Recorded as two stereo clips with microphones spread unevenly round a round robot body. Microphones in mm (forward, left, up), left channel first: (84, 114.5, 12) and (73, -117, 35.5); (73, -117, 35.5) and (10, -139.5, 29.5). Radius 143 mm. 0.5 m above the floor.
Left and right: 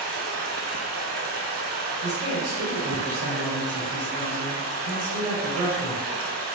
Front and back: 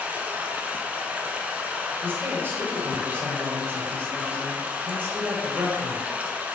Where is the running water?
90° right, 0.8 m.